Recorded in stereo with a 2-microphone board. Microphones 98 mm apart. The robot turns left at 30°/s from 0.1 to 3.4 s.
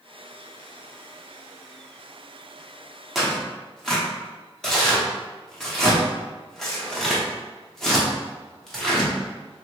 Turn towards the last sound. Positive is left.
turn(degrees=5)  # may be behind; listen again after turning